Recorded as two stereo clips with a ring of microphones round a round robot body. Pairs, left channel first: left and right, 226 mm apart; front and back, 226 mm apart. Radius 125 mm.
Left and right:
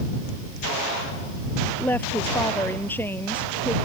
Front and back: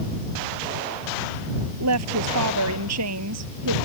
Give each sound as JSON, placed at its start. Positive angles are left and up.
{"t": 1.8, "sound": "a woman speaking", "azimuth_deg": 175}